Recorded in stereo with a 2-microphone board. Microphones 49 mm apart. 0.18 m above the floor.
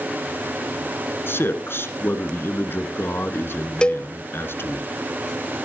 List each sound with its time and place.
1.3 s a man speaking: 55° left (ahead or behind), 2.5 m
3.8 s a cowbell: 20° left (ahead or behind), 0.5 m